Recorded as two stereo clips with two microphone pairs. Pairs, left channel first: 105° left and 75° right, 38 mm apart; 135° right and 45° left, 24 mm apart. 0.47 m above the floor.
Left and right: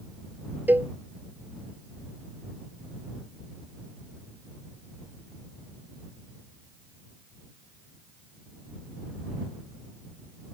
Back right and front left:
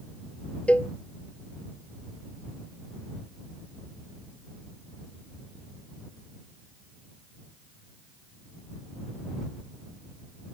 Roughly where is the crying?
No crying in this recording.